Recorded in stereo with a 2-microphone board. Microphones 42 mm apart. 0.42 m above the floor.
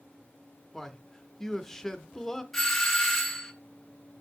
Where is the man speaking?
10° left (ahead or behind), 0.7 m.